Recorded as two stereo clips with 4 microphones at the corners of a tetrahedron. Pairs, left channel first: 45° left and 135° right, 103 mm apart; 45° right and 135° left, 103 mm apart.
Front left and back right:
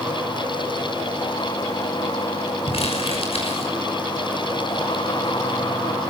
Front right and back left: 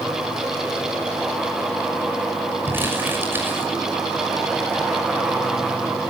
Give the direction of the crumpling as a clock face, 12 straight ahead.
10 o'clock.